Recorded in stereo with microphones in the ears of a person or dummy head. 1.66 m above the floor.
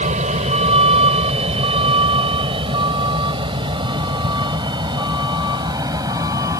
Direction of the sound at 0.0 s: 40° right (ahead or behind).